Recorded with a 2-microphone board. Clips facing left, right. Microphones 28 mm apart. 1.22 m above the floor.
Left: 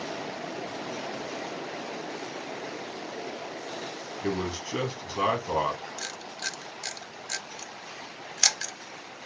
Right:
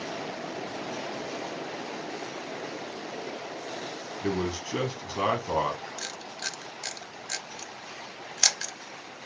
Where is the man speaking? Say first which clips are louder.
Right 1 dB; 5° right (ahead or behind), 1.2 m.